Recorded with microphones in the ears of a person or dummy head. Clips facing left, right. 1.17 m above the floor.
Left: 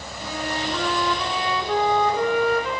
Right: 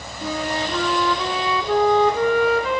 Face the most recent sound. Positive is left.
turn(degrees=-55)  # may be behind; listen again after turning